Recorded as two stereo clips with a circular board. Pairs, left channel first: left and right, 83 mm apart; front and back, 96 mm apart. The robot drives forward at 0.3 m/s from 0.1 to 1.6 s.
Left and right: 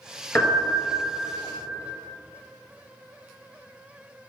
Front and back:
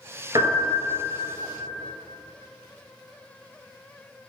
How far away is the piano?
About 1.5 m.